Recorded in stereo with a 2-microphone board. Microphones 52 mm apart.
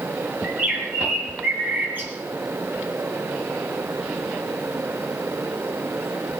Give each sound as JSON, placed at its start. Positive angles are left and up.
{"t": 0.4, "sound": "a bird", "side_deg": -35, "distance_m": 3.0}